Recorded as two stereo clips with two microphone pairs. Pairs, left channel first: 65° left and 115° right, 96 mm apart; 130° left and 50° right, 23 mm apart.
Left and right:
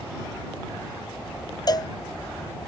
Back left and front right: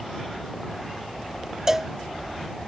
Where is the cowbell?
20° left.